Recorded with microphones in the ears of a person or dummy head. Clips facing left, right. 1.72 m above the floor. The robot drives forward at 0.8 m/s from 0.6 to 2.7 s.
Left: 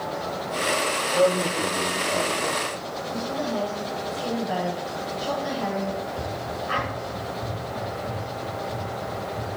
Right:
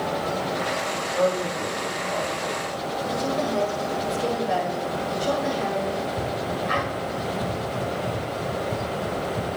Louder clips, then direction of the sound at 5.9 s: Right 3 dB; 55° right (ahead or behind).